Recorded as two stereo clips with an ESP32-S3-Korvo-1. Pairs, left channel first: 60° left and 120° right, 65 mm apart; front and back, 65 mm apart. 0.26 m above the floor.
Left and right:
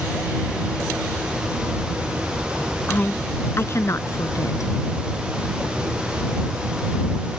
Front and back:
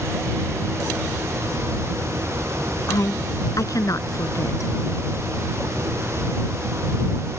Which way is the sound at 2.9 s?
5° left.